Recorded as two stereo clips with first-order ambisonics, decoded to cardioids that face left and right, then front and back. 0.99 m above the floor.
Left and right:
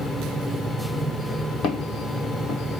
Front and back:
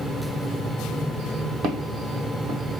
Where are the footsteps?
135° left, 1.8 m.